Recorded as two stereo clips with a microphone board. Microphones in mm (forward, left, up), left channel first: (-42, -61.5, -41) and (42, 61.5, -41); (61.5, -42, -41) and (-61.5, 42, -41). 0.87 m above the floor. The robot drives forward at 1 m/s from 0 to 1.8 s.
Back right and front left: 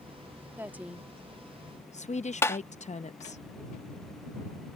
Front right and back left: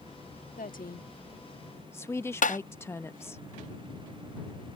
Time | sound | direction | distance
0.6 | a woman speaking | 20° right | ?
2.4 | tapping | 55° right | ?